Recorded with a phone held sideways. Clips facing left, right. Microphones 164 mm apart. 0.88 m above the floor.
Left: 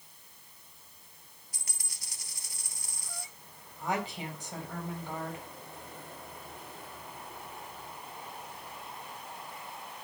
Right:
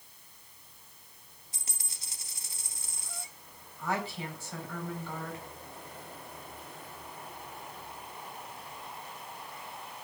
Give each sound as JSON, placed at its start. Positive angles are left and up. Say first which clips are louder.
{"t": 1.5, "sound": "a dropped coin", "louder": "right 2 dB", "side_deg": -25, "distance_m": 1.6}
{"t": 3.8, "sound": "a woman speaking", "louder": "even", "side_deg": 20, "distance_m": 4.0}